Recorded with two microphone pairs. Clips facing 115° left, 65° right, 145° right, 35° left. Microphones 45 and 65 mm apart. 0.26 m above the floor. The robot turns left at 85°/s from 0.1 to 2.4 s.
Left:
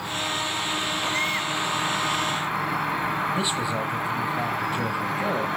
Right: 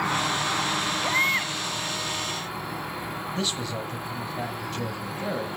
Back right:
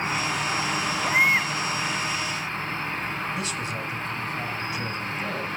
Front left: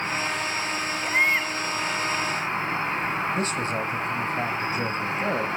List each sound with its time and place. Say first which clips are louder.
0.0 s an insect: right 3 dB, back right 1 dB; 65° right, 3.5 m; by 5.6 s 100° left, 3.5 m
1.0 s a baby crying: right 4 dB, back right 1 dB; 60° right, 1.2 m; by 1.5 s 105° right, 1.2 m
3.3 s a man speaking: left 5 dB, front left 4 dB; 45° left, 1.2 m